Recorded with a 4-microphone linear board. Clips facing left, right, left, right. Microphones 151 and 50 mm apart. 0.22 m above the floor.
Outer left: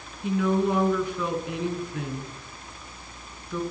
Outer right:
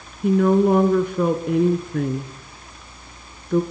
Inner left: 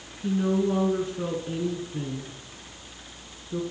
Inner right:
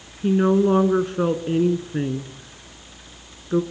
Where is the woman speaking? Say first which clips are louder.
Outer right 8 dB, inner right 7 dB; 50° right (ahead or behind), 2.5 m.